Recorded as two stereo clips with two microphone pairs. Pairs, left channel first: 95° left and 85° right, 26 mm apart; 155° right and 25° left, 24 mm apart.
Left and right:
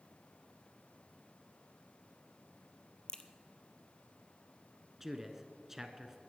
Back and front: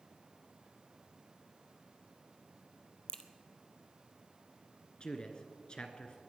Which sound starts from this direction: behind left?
A crack, at 3.1 s.